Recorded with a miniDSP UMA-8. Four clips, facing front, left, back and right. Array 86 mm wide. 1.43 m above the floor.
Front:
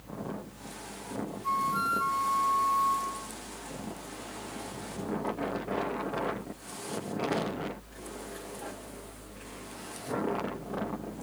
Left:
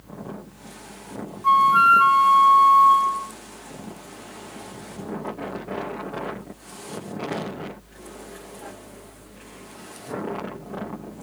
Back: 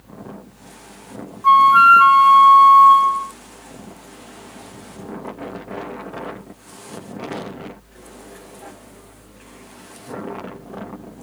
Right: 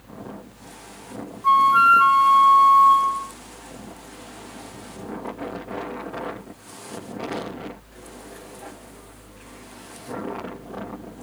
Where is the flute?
Straight behind.